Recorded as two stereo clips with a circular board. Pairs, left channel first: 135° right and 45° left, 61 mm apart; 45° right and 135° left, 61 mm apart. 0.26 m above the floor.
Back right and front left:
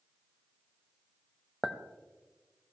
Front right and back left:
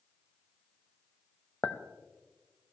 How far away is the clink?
About 0.7 m.